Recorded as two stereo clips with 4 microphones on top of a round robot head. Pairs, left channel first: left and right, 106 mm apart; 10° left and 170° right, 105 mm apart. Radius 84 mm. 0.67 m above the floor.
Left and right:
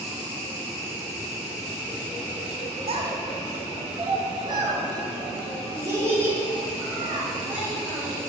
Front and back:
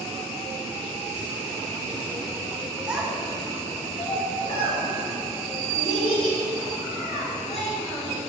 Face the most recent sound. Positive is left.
turn(degrees=-15)